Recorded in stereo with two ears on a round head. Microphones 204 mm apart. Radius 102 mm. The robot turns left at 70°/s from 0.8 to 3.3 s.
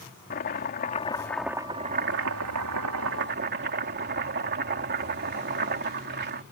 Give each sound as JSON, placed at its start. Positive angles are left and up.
{"t": 0.3, "sound": "chopping", "azimuth_deg": 40}